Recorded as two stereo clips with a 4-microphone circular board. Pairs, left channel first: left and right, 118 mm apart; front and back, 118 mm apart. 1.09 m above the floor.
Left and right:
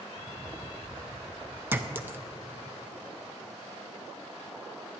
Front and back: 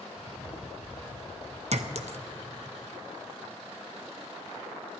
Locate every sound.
0.1 s footsteps: 35° right, 1.2 m; by 1.6 s 40° right, 1.8 m
1.7 s a clink: 165° right, 0.6 m